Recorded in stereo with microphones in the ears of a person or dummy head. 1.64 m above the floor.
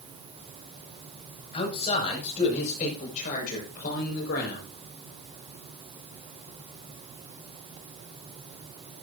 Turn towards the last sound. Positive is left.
turn(degrees=65)  # may be behind; listen again after turning